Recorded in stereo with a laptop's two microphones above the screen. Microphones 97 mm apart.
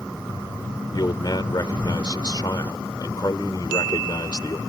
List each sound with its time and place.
0.9 s a man speaking: 50° left (ahead or behind)